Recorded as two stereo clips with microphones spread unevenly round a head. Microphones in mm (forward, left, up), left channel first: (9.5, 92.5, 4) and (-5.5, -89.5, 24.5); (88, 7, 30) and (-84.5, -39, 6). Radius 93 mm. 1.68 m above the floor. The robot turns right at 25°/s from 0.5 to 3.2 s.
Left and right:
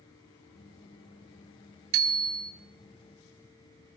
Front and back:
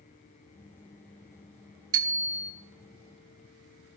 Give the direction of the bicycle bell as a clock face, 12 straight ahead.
3 o'clock.